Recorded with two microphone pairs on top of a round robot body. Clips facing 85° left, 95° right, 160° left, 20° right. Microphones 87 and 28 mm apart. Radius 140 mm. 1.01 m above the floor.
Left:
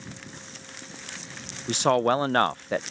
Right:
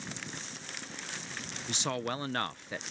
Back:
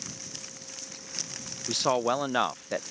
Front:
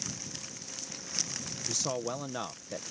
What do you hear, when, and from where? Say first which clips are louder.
1.7 s a man speaking: left 13 dB, back 9 dB; 115° left